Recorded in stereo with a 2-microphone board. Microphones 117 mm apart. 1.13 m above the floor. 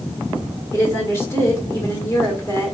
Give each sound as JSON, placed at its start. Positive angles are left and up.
{"t": 0.7, "sound": "a woman speaking", "side_deg": 25, "distance_m": 1.6}